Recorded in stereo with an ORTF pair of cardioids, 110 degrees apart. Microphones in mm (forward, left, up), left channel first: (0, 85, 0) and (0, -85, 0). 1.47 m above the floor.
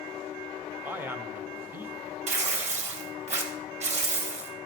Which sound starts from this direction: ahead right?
Tearing paper, at 2.3 s.